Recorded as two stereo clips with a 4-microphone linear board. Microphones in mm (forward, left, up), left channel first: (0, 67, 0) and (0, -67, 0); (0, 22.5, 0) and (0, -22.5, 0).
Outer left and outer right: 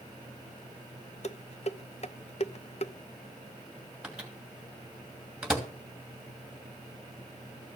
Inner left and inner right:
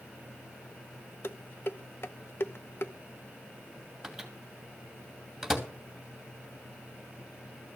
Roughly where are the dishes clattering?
Left.